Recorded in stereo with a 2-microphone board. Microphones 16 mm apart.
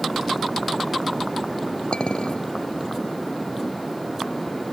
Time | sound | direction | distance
1.9 | a clink | 60° left (ahead or behind) | ?